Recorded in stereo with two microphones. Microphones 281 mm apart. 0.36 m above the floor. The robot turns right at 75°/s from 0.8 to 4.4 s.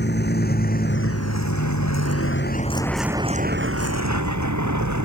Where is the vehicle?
35° left (ahead or behind); by 5.1 s 85° right.